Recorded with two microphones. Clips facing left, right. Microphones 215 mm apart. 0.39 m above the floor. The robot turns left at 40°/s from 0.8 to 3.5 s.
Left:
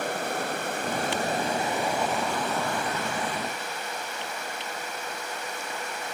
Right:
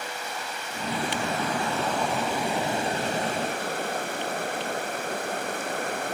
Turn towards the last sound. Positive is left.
turn(degrees=-55)